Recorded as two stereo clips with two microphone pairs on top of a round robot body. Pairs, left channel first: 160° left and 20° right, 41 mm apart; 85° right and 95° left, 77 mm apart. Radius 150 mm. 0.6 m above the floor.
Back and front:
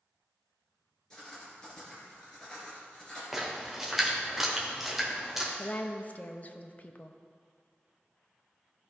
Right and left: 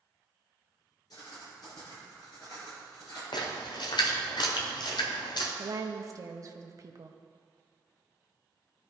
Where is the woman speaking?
135° left, 0.9 m.